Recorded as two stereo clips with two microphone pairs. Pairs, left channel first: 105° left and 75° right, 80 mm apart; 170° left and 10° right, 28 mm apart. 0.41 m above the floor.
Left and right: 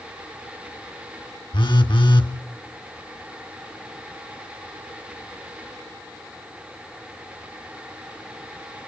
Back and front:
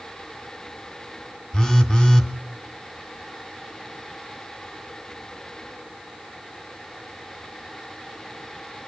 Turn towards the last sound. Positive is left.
turn(degrees=110)